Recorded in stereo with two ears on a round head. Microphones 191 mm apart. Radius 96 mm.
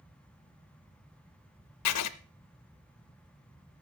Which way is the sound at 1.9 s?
90° left.